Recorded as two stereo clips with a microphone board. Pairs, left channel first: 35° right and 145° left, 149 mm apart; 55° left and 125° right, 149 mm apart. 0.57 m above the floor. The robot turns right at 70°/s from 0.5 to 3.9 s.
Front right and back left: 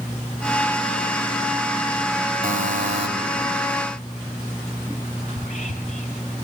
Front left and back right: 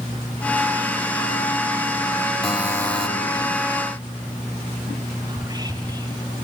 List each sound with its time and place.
2.4 s a buzzer: 145° left, 3 m; by 3.1 s 170° right, 3 m
5.3 s whispering: 60° right, 2 m